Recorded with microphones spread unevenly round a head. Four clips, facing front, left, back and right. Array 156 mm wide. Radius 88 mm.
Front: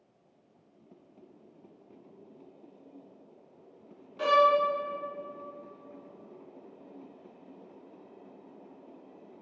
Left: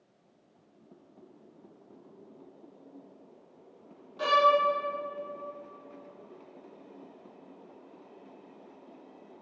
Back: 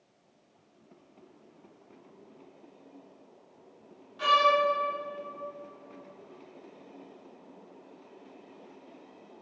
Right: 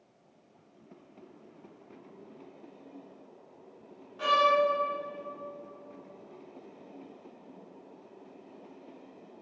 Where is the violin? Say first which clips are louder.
Left 2 dB, front 1 dB; 10° left, 0.7 m.